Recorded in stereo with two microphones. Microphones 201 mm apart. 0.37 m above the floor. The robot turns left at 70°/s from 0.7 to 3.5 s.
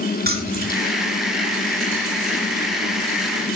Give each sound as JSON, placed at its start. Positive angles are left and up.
{"t": 0.2, "sound": "keys jangling", "side_deg": -50, "distance_m": 4.0}